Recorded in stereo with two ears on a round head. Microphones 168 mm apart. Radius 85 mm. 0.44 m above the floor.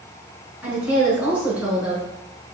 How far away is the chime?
I don't hear a chime.